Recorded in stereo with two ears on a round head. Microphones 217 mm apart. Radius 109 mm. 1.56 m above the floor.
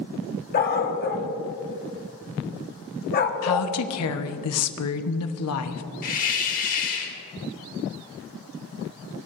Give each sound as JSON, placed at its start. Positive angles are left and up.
{"t": 0.5, "sound": "a dog barking", "side_deg": 40, "distance_m": 1.2}
{"t": 3.4, "sound": "a woman speaking", "side_deg": 65, "distance_m": 1.1}
{"t": 6.0, "sound": "a hiss", "side_deg": 35, "distance_m": 1.8}